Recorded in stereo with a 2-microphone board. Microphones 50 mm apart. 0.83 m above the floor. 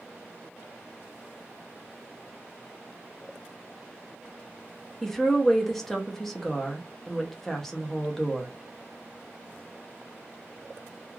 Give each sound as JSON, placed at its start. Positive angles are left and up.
{"t": 5.0, "sound": "a woman speaking", "side_deg": 5, "distance_m": 0.6}